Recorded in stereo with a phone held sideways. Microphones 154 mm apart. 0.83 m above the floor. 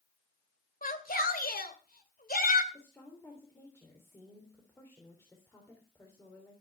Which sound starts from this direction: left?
A shout, at 0.8 s.